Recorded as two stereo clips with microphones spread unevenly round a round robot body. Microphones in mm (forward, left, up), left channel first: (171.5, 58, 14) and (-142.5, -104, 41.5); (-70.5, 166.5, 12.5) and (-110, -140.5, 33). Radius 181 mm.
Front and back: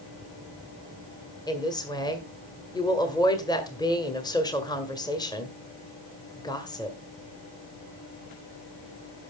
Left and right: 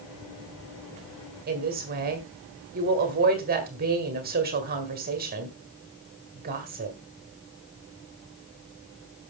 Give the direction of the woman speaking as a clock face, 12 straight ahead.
1 o'clock.